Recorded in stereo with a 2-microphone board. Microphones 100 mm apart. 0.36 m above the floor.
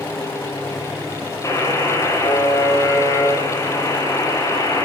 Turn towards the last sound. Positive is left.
turn(degrees=30)  # may be behind; listen again after turning